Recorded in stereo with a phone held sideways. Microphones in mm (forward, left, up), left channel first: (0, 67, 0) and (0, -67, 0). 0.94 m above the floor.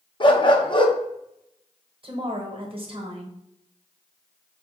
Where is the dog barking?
35° left (ahead or behind), 0.5 m.